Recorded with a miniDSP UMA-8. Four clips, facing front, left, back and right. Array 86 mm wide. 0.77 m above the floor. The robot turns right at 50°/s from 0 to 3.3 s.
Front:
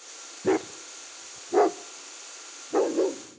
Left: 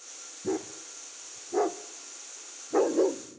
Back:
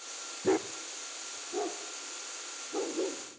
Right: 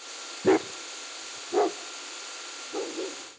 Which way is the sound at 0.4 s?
75° right.